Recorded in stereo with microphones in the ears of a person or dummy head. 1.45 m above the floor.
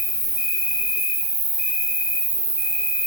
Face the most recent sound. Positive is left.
turn(degrees=-50)  # may be behind; listen again after turning